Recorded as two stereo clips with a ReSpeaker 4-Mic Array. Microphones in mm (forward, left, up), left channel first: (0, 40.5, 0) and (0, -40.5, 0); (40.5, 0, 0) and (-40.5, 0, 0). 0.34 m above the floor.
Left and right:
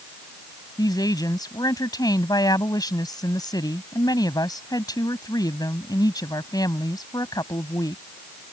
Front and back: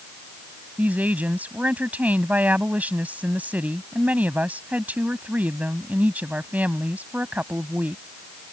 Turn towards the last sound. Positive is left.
turn(degrees=110)